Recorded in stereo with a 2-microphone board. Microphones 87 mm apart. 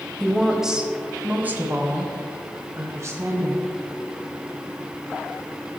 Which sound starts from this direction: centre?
A woman speaking, at 0.2 s.